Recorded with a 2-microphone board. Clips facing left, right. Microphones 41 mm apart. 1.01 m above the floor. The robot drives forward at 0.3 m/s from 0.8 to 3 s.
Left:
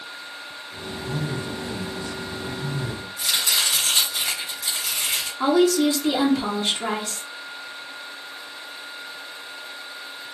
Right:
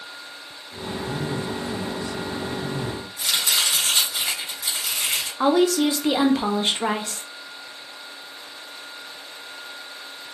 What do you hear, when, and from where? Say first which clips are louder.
1.0 s a man speaking: right 1 dB; centre (ahead or behind), 1.3 m
3.2 s chopping: even; 15° right (ahead or behind), 2.0 m
5.4 s a woman speaking: even; 35° right (ahead or behind), 0.7 m